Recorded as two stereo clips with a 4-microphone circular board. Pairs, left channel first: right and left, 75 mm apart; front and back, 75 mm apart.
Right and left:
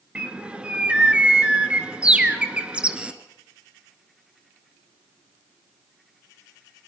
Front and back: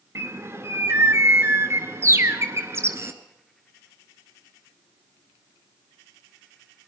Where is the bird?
155° left, 1.7 m.